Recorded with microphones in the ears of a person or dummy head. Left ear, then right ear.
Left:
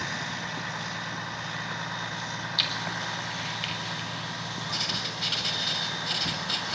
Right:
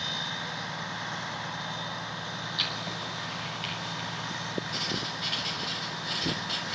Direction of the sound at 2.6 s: 20° left (ahead or behind).